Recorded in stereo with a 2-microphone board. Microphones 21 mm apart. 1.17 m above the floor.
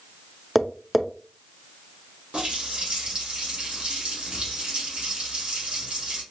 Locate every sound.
0.6 s tapping: 5° right (ahead or behind), 0.5 m
2.3 s a running tap: 75° right (ahead or behind), 2 m